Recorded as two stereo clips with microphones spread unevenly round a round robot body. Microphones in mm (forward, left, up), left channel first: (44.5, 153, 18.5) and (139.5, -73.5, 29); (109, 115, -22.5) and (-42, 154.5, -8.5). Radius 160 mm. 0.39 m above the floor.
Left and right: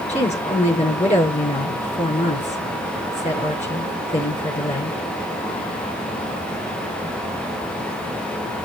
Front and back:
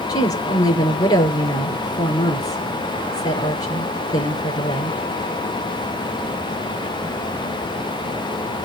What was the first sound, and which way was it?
A woman speaking, 45° left.